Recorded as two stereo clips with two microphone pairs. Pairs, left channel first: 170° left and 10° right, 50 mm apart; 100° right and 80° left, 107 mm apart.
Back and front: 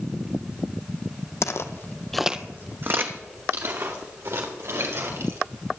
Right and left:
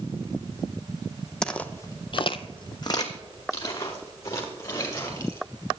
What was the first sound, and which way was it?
Footsteps, 175° left.